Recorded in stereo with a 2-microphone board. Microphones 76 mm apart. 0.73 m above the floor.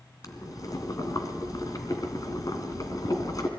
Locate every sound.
0.2 s boiling: 50° left (ahead or behind), 2 m